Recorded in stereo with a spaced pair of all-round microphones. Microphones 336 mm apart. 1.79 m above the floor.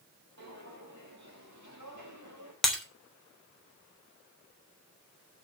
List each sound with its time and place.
0.4 s footsteps: 50° right (ahead or behind), 4.5 m; by 2.5 s 60° right (ahead or behind), 3.5 m
2.6 s breaking glass: centre (ahead or behind), 3 m